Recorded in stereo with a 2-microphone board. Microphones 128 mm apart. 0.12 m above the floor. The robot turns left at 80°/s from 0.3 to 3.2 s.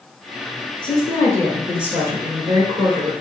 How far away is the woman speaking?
About 1.6 m.